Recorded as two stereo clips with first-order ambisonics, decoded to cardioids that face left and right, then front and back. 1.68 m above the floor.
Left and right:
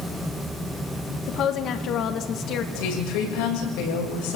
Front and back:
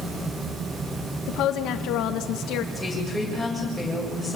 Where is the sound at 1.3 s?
40° left, 1.7 m.